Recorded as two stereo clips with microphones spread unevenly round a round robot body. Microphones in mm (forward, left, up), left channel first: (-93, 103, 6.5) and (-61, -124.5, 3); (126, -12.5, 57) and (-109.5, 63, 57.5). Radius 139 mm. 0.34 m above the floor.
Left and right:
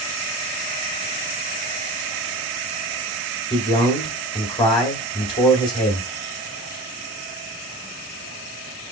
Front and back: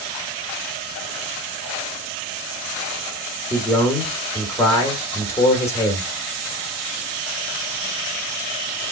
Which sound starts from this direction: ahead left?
A man speaking, at 3.5 s.